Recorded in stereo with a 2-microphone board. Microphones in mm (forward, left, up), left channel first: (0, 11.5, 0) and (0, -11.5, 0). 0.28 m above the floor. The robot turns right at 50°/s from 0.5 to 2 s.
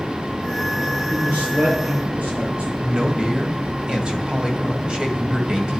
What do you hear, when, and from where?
1.1 s a man speaking: 120° right, 6.5 m; by 2.7 s 75° right, 6.5 m
2.8 s a man speaking: 35° right (ahead or behind), 1.8 m